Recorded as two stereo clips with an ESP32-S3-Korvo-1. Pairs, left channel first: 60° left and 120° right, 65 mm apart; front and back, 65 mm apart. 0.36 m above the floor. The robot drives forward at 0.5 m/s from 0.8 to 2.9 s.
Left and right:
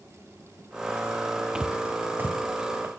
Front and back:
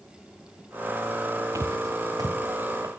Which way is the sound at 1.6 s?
160° left.